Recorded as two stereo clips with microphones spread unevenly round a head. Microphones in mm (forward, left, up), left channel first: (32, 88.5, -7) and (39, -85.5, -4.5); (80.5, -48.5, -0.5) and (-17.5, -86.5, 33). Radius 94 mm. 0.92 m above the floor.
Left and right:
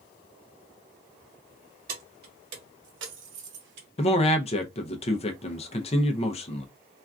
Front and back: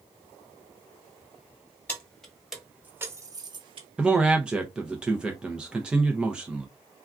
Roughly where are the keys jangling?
Ahead right.